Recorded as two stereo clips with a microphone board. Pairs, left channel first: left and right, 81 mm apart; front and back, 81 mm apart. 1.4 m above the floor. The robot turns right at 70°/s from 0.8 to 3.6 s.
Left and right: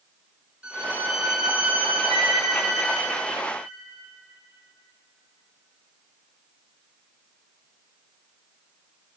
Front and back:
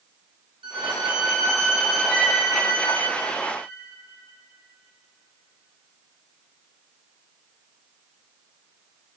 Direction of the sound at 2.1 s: 120° left.